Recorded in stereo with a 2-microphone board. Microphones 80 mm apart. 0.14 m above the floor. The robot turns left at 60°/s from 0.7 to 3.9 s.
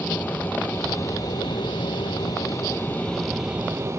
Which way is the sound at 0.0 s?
155° left.